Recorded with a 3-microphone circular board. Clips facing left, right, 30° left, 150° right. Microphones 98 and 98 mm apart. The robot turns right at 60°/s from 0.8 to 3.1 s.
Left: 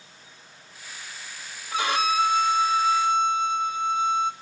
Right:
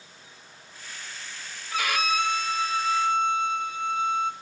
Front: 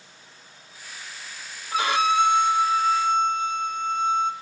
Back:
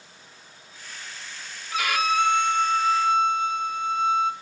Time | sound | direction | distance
1.7 | a violin | 45° left | 0.6 m